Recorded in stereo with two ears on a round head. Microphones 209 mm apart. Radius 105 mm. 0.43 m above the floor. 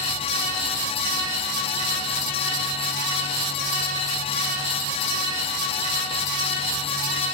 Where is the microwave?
No microwave in this recording.